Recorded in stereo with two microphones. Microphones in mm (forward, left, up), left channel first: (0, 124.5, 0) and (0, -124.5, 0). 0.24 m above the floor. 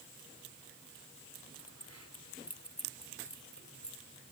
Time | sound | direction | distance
1.6 | keys jangling | 70° left (ahead or behind) | ?